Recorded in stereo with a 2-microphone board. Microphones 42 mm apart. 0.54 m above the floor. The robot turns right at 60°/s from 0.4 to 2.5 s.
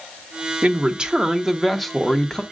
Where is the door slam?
I don't hear a door slam.